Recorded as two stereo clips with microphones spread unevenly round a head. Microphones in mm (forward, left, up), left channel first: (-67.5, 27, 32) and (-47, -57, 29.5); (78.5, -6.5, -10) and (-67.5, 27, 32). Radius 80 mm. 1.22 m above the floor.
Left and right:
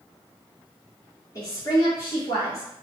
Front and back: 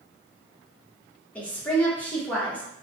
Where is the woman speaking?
55° left, 0.9 m.